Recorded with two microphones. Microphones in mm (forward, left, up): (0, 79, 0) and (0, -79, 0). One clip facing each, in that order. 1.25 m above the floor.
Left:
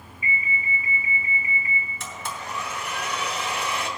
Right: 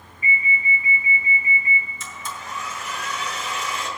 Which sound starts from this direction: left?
A blender, at 2.0 s.